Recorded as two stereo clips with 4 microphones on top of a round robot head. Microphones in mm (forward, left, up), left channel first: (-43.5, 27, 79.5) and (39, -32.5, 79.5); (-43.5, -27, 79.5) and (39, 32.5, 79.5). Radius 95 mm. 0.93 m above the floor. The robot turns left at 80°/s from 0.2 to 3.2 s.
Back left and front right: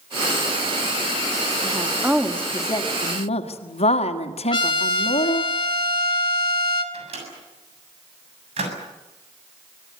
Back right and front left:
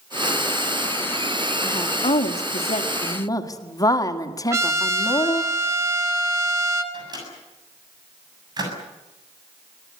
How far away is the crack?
I don't hear a crack.